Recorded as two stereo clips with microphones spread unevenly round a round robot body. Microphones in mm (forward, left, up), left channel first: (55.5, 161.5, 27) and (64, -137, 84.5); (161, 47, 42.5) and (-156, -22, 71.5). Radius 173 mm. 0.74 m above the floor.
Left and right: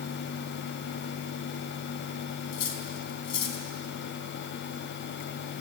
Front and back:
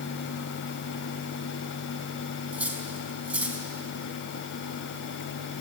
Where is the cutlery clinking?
105° left, 3.5 m.